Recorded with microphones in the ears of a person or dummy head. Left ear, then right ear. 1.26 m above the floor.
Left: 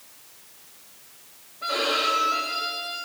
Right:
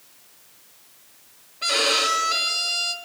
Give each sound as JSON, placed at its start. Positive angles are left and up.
{"t": 1.6, "sound": "a violin", "side_deg": -80, "distance_m": 1.9}